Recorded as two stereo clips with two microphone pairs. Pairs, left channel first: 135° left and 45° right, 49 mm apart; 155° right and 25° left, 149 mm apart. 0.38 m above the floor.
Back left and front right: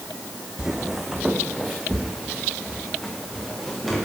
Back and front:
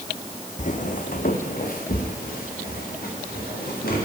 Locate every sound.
0.6 s footsteps: 125° right, 0.8 m; by 4.0 s 140° right, 3.5 m